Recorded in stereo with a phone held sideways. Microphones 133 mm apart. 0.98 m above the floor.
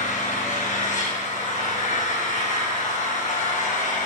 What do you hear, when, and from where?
0.0 s an engine running: 70° left (ahead or behind), 4 m